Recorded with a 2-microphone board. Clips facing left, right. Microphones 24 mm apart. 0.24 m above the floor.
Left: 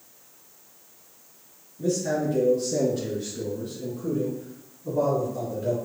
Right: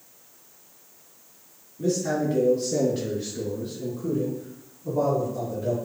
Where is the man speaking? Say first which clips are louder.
Right 1 dB; 55° right (ahead or behind), 1.9 m; by 5.8 s 5° right (ahead or behind), 2.0 m.